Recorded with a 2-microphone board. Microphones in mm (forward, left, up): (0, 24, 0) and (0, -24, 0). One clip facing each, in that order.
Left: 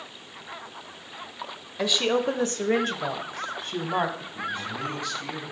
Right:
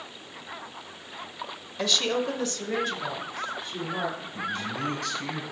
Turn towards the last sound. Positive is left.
turn(degrees=-70)  # may be behind; listen again after turning